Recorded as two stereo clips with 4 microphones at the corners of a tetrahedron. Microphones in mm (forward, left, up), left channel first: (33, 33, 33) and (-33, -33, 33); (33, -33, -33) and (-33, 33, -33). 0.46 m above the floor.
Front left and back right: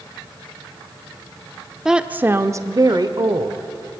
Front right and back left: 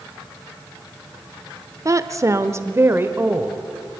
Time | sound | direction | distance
1.9 | a woman speaking | 145° left | 0.8 m